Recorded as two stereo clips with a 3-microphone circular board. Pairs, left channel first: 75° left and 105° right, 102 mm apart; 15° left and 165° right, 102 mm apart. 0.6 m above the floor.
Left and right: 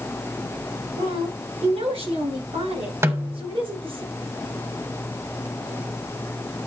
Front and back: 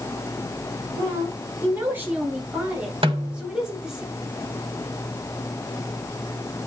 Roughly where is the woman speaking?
Right.